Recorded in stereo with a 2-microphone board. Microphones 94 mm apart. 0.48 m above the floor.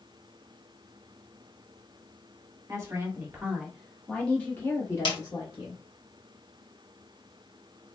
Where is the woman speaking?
30° right (ahead or behind), 1.4 m; by 5.8 s 45° left (ahead or behind), 1.6 m.